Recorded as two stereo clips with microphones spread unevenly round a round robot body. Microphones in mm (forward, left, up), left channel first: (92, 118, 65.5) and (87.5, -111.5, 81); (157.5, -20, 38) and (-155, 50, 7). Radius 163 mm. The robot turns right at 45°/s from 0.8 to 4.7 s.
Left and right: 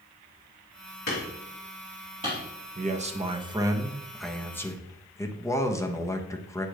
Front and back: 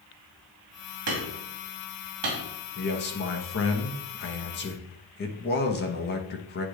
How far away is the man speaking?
About 1.2 m.